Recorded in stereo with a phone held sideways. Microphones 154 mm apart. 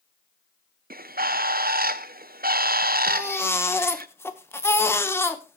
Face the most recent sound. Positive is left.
turn(degrees=15)  # may be behind; listen again after turning